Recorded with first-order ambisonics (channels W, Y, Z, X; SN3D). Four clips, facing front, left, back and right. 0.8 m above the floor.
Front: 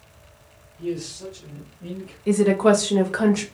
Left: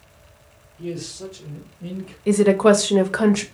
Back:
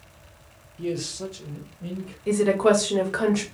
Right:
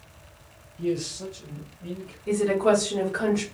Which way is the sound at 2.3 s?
85° left.